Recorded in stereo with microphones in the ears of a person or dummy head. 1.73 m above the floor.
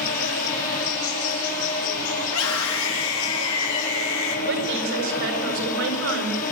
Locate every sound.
0.0 s an insect: 40° left (ahead or behind), 4.5 m
2.2 s a scream: 75° left (ahead or behind), 3 m
4.5 s a woman speaking: 70° right (ahead or behind), 7 m